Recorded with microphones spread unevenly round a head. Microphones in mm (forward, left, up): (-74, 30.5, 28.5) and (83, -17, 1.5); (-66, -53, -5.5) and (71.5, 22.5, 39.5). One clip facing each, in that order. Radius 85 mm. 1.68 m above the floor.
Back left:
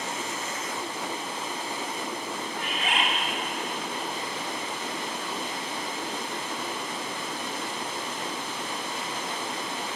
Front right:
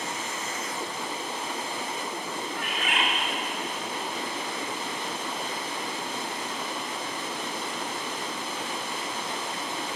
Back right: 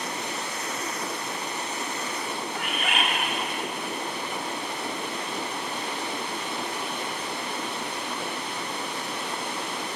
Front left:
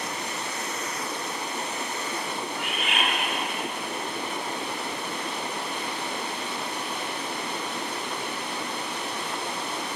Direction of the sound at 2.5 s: 175° left.